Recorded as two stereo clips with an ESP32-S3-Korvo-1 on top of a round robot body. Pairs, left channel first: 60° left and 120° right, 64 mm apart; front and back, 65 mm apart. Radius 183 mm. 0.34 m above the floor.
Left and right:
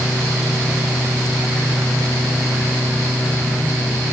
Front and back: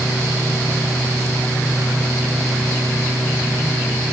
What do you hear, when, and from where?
Only background noise.